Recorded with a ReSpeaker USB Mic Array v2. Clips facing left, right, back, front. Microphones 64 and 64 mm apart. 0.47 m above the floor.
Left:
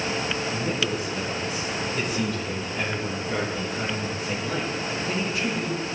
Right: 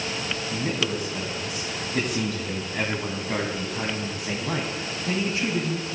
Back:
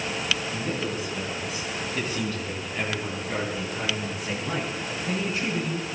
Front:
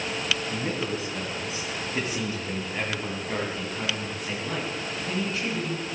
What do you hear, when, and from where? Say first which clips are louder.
0.5 s a man speaking: left 1 dB, even; 50° right, 4 m; by 5.9 s 115° right, 4 m